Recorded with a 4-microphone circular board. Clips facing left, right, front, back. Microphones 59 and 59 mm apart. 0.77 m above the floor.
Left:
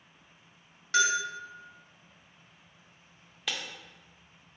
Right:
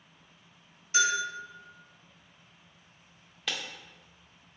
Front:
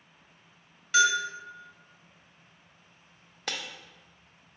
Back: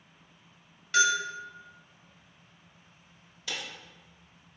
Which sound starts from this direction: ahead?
Breaking glass, at 3.5 s.